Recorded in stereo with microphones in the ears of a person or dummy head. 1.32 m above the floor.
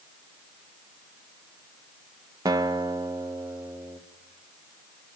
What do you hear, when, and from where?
2.5 s a guitar: 15° right (ahead or behind), 1.2 m